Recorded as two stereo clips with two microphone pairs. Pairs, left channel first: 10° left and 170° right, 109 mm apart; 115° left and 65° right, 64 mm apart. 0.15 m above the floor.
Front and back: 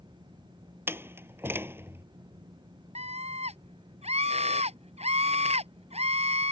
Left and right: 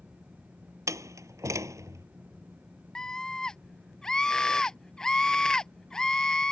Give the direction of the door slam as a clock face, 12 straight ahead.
3 o'clock.